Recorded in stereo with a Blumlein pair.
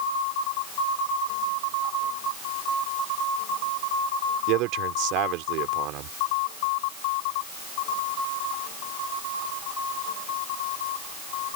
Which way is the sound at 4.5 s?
40° right.